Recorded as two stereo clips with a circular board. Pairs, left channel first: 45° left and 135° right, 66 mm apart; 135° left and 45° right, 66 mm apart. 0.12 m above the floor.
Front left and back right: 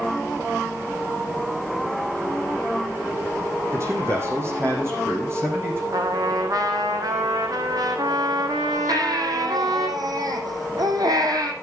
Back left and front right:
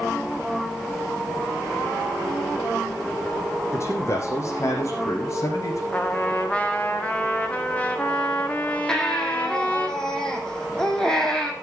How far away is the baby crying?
About 3 m.